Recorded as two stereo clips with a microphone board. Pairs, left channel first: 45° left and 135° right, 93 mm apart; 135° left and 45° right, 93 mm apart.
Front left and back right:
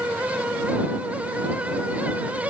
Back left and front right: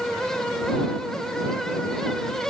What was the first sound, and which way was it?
Only background noise.